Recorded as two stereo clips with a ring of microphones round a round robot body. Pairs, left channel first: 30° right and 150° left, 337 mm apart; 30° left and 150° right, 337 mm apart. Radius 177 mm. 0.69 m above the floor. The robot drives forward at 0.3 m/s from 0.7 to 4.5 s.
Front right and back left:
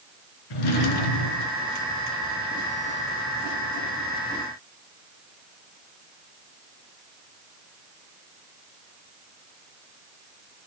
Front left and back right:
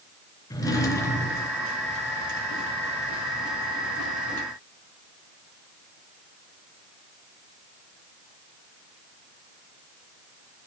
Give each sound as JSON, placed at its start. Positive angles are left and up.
{"t": 0.5, "sound": "a drawer", "azimuth_deg": -50, "distance_m": 3.0}